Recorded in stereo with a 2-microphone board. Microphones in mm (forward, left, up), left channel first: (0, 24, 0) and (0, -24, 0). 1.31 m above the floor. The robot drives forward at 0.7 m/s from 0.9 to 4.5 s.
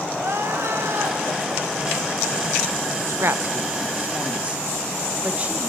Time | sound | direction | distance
0.2 | crying | 60° right (ahead or behind) | 1.5 m
3.1 | a woman speaking | 65° right (ahead or behind) | 0.8 m